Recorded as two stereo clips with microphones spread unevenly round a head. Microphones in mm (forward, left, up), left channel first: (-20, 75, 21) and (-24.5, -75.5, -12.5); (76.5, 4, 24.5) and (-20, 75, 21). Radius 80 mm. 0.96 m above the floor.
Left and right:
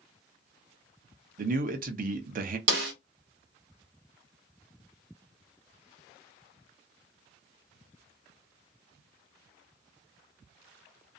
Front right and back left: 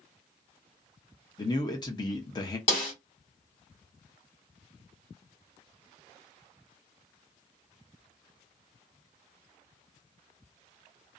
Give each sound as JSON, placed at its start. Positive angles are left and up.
{"t": 1.4, "sound": "a man speaking", "azimuth_deg": -95, "distance_m": 0.7}
{"t": 2.7, "sound": "a snare drum", "azimuth_deg": -95, "distance_m": 1.0}